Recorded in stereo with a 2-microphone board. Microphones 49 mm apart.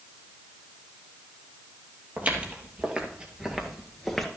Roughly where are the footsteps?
Right.